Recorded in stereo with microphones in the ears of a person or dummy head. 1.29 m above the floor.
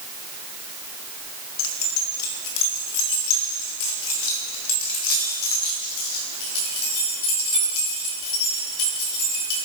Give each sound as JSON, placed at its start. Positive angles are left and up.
{"t": 1.6, "sound": "keys jangling", "side_deg": 65, "distance_m": 1.6}